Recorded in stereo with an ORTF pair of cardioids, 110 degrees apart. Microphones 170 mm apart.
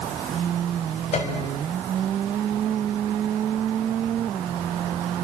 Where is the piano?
45° left, 6 m.